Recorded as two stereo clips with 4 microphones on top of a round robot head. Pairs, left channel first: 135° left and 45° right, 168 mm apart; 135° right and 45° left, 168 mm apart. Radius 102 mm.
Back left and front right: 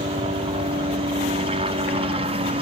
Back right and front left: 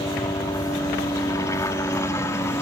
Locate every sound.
0.0 s a helicopter: 75° right; by 2.6 s 70° right